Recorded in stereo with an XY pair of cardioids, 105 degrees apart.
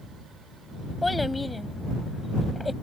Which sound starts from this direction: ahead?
A child speaking, at 1.0 s.